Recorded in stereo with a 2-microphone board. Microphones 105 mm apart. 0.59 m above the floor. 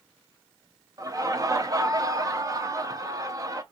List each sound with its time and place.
1.0 s laughter: 30° right (ahead or behind), 0.6 m